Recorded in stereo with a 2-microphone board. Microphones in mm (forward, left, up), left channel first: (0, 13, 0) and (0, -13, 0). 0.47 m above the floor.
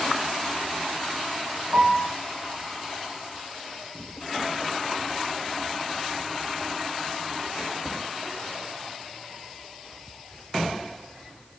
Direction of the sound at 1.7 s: 80° right.